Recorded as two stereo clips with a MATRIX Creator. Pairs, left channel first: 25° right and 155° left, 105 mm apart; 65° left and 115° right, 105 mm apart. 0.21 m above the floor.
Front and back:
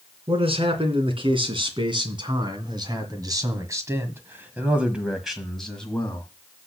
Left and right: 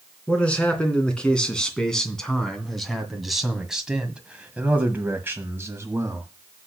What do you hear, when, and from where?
0.3 s a man speaking: 145° left, 3 m; by 6.3 s 80° right, 1.6 m